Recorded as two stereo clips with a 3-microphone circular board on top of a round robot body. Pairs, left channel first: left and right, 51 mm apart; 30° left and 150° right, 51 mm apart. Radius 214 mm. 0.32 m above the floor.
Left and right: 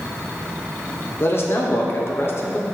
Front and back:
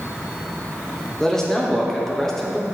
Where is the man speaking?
110° left, 2.0 m.